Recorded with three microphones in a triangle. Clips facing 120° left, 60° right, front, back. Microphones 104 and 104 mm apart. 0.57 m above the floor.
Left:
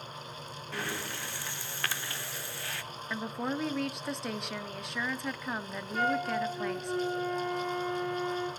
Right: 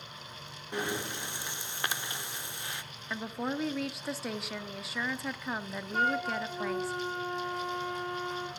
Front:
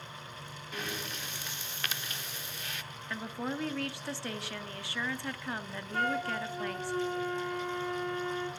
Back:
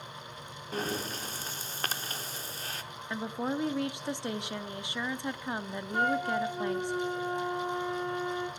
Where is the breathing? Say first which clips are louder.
Right 3 dB, back 6 dB; 130° right, 0.6 m.